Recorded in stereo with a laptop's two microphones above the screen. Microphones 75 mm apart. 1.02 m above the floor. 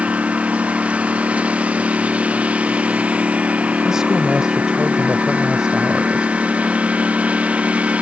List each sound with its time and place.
0.0 s a lawn mower: 20° right (ahead or behind)
3.9 s a woman speaking: 10° right (ahead or behind)